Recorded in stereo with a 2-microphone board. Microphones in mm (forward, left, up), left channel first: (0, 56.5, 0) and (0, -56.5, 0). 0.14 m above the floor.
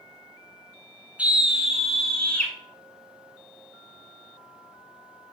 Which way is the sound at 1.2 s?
10° right (ahead or behind).